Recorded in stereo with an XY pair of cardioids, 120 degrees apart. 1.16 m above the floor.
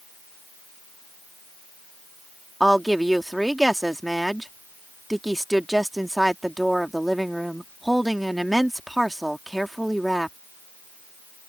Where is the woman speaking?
5° right.